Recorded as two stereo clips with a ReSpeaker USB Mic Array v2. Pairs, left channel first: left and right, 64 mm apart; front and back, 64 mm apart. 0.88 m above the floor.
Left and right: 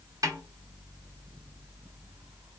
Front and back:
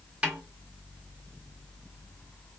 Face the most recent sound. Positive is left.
turn(degrees=-110)